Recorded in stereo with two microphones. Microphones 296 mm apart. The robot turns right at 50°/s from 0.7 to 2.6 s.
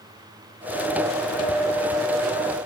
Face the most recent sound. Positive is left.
No sound to turn to.